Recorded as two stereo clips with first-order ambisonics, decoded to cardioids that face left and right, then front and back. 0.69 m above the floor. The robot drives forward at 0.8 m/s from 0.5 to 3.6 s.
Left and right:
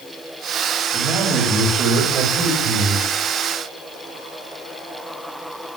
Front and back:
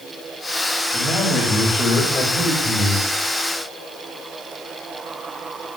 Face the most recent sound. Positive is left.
turn(degrees=-85)